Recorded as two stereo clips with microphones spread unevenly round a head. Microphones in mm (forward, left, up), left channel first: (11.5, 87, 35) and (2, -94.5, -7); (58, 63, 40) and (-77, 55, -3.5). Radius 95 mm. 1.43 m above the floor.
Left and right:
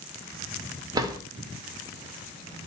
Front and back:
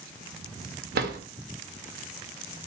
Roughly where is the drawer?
Behind.